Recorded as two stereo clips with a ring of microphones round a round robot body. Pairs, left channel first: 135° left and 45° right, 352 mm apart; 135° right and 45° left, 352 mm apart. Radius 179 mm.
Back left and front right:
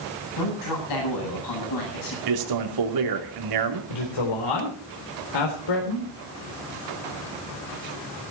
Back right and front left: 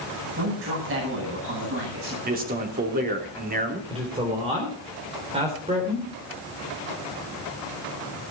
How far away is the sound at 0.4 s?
About 9 m.